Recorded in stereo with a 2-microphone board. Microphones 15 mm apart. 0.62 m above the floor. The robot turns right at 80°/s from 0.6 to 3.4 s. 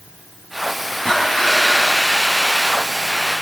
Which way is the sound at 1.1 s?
30° left.